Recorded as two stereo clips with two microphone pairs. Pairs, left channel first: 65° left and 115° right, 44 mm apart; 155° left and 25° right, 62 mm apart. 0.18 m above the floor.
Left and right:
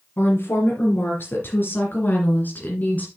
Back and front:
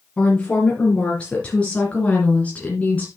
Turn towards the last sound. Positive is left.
turn(degrees=100)